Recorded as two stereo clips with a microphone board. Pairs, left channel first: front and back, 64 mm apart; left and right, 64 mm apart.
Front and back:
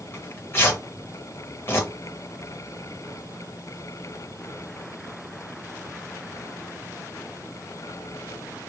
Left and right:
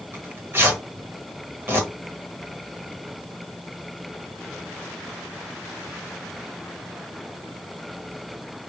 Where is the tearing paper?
45° right, 1.8 m.